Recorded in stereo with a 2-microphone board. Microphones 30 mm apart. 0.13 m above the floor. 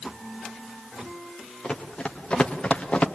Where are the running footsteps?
30° left (ahead or behind), 3.5 m; by 3.1 s 45° left (ahead or behind), 2 m.